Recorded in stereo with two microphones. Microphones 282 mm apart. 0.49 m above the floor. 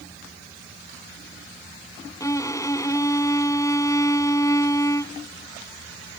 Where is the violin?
10° left (ahead or behind).